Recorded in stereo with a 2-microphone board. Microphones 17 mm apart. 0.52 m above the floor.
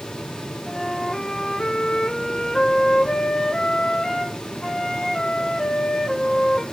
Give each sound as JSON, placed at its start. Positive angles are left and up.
{"t": 0.7, "sound": "a flute", "side_deg": 40, "distance_m": 1.5}